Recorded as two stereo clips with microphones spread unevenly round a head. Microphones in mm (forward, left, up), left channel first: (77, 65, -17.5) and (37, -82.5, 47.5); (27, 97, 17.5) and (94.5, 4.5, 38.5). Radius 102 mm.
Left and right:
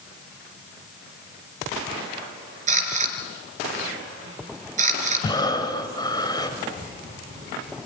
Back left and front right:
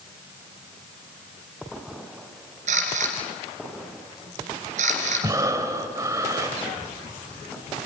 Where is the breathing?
Straight ahead, 2 m.